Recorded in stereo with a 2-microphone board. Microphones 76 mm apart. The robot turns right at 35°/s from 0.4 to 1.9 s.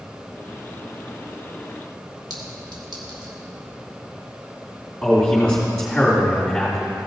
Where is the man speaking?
5° left (ahead or behind), 2.5 m.